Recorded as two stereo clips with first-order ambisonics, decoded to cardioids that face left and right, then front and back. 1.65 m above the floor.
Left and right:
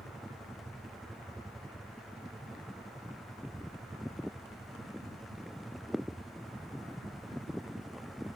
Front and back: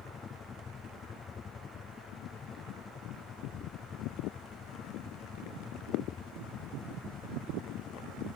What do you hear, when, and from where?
0.0 s a helicopter: 20° right